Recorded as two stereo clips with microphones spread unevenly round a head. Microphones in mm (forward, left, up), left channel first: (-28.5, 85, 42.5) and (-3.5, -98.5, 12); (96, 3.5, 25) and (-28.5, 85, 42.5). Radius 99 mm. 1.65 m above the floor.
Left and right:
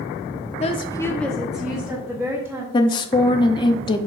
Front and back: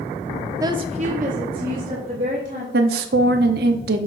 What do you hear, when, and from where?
0.6 s a woman speaking: 100° left, 0.7 m; by 2.6 s 160° right, 2.5 m
2.7 s a woman speaking: 160° left, 0.7 m